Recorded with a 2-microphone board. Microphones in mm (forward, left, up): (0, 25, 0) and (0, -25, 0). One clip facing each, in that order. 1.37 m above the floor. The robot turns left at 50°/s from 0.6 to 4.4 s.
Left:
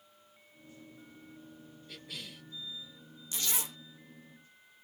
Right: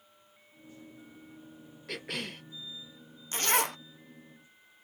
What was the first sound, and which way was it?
A cough, 70° right (ahead or behind).